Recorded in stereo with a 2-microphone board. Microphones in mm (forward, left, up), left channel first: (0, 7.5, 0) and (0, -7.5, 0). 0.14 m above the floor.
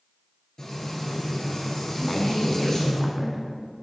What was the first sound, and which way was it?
Frying, 40° left (ahead or behind).